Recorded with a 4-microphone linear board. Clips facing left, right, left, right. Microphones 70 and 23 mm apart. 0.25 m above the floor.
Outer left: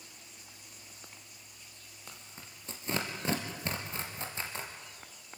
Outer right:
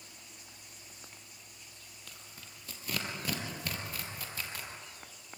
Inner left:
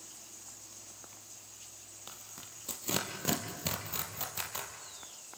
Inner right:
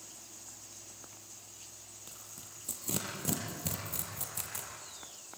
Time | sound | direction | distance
2.1 | tearing paper | 25° left (ahead or behind) | 3 m